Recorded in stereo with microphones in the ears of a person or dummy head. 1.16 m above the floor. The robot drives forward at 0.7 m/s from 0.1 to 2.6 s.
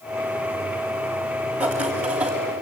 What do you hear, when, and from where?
1.6 s writing: 5° right (ahead or behind), 2.5 m